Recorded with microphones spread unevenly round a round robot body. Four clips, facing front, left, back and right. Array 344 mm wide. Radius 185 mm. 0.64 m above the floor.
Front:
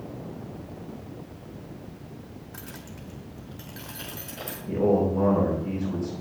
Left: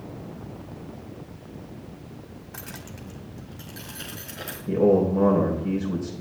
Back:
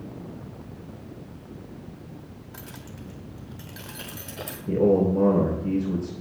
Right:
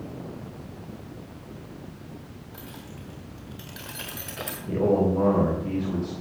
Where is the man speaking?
160° left, 3 m.